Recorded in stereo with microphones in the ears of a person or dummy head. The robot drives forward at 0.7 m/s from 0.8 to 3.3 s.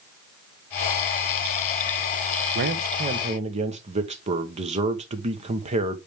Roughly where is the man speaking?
Right.